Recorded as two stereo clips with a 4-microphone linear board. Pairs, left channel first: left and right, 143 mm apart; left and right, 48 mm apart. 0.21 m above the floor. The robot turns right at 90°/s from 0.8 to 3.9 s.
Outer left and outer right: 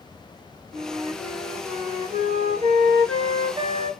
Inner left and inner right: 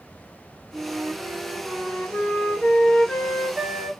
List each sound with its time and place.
0.7 s a flute: 40° right, 1.3 m; by 3.9 s 120° right, 1.3 m